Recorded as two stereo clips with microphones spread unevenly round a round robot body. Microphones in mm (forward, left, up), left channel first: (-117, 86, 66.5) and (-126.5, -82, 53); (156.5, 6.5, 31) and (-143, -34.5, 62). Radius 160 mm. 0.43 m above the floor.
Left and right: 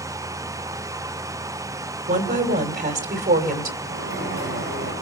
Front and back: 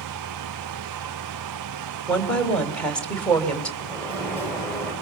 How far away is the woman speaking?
About 3 m.